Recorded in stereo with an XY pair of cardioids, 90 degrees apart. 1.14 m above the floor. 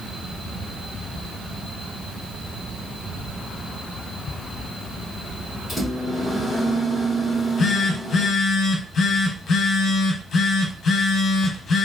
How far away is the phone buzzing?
About 1.0 m.